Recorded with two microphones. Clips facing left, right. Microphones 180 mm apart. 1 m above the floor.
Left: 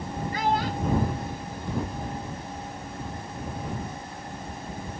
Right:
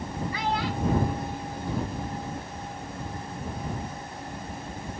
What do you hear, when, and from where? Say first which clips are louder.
0.3 s a child speaking: left 4 dB; 50° left (ahead or behind)